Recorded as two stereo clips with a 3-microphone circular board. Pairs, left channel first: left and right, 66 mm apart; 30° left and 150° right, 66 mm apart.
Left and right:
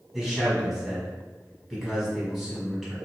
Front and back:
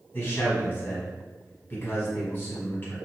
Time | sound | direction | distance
0.1 | a man speaking | 5° right | 1.5 m